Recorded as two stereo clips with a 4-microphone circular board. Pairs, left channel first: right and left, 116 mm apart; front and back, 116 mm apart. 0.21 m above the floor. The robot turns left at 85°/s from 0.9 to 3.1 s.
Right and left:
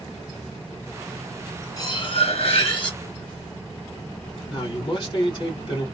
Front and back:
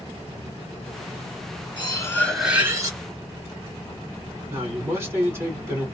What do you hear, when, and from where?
1.8 s cutlery clinking: 35° right, 1.3 m; by 3.0 s 140° right, 1.3 m
4.5 s a man speaking: 120° right, 2 m